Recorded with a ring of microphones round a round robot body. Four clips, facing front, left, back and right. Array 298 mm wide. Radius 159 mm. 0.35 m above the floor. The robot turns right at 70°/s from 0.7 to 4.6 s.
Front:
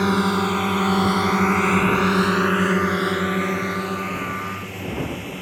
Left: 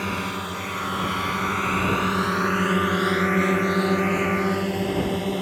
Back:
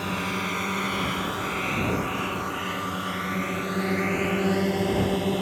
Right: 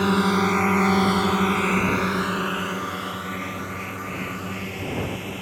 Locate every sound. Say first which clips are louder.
0.0 s a drone: right 8 dB, front 10 dB; 40° right; by 5.4 s 135° left